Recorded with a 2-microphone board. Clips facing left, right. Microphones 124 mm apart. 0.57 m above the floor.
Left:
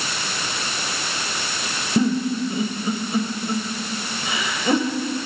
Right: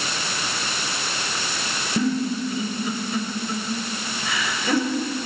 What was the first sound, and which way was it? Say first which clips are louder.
A giggle: left 3 dB; 25° left (ahead or behind).